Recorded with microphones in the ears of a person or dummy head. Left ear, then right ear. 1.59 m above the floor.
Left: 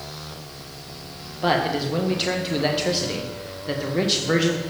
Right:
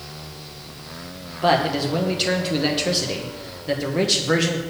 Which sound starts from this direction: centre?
A man speaking, at 1.4 s.